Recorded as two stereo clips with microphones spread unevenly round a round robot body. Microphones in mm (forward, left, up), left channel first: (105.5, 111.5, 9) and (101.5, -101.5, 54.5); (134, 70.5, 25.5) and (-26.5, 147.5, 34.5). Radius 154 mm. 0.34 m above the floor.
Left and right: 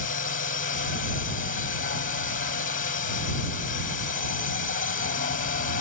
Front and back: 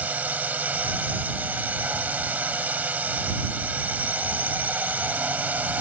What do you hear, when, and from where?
0.0 s a drone: 75° left